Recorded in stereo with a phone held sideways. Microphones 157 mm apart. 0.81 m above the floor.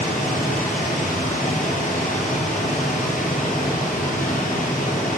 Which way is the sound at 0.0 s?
60° left (ahead or behind).